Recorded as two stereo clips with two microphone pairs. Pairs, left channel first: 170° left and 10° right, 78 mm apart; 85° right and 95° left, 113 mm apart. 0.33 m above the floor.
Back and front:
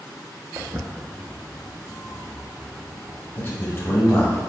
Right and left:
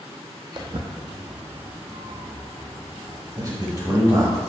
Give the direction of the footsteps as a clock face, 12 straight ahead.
10 o'clock.